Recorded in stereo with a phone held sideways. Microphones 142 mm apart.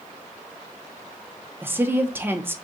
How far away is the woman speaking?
About 0.5 m.